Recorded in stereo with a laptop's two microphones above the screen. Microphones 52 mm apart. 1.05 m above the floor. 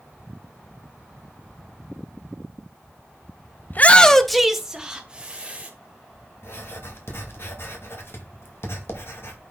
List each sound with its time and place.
3.7 s a shout: 40° left (ahead or behind), 0.8 m; by 5.7 s 25° right (ahead or behind), 2.5 m
6.4 s writing: 55° left (ahead or behind), 1.6 m